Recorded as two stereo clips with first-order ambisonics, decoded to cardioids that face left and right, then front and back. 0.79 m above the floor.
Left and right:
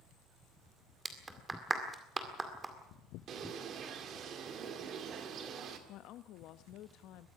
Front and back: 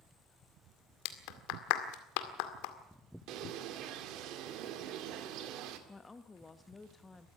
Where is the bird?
145° right, 2.0 m.